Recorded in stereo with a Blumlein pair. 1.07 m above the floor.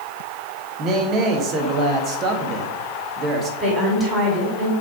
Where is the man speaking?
30° right, 1.3 m.